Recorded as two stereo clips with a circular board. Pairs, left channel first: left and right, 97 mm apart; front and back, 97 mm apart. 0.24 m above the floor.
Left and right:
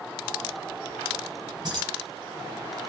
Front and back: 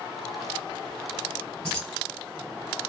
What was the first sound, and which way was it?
Keys jangling, 80° right.